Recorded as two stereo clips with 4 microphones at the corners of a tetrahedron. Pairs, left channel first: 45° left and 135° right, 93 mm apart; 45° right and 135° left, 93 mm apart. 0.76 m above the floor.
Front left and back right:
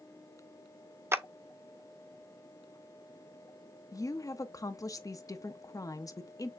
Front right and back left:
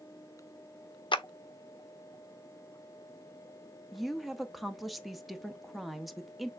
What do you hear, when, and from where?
1.1 s a clap: 70° right, 0.6 m
3.9 s a woman speaking: 45° left, 0.7 m